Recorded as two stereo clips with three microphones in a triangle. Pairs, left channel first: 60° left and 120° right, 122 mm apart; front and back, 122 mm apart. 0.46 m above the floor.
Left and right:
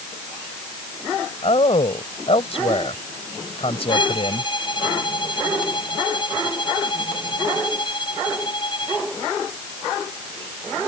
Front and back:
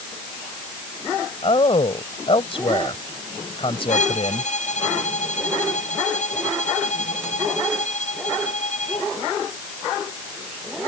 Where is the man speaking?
35° left.